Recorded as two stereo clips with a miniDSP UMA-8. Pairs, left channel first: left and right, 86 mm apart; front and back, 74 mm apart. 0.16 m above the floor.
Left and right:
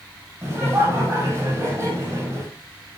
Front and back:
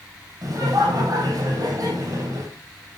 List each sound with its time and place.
0.4 s laughter: 145° right, 5.5 m